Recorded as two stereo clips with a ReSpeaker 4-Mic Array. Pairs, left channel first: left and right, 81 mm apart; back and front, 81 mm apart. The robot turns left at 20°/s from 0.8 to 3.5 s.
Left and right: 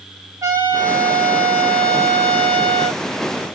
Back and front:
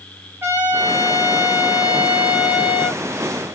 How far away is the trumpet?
About 3 m.